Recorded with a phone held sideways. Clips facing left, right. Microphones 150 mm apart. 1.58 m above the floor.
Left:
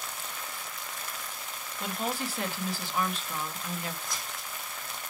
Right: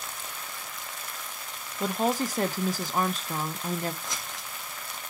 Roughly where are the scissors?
Right.